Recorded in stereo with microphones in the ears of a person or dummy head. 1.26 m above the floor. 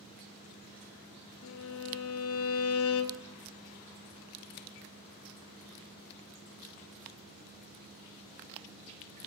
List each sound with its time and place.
1.4 s a violin: 70° left (ahead or behind), 1.0 m